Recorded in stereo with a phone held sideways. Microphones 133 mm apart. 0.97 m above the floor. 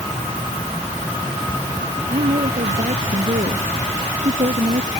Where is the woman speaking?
70° right (ahead or behind); by 4.9 s 65° right (ahead or behind).